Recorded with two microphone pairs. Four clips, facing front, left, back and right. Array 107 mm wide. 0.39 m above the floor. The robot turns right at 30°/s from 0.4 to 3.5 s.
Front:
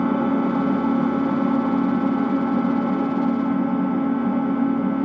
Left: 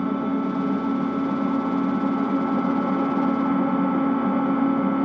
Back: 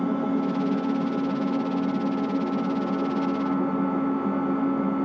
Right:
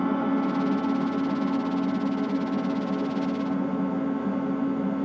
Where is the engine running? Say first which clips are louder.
Left 1 dB, front 5 dB; straight ahead, 0.8 m; by 5.0 s 90° left, 0.8 m.